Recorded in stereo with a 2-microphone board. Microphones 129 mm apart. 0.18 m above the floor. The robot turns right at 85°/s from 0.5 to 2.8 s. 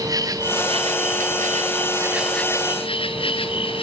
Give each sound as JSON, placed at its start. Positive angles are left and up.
{"t": 0.0, "sound": "an insect", "azimuth_deg": -155, "distance_m": 1.1}